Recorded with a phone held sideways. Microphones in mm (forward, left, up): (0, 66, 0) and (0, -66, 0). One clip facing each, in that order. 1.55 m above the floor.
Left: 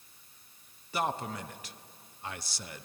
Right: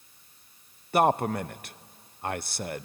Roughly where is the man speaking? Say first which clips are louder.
Right 10 dB; right.